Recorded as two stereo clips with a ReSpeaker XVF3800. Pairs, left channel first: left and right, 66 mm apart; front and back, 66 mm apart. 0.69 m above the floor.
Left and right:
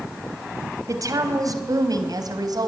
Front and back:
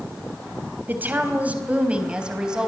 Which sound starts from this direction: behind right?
A woman speaking, at 0.9 s.